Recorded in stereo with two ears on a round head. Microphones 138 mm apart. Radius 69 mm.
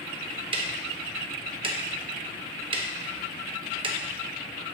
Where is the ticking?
35° right (ahead or behind), 0.6 m.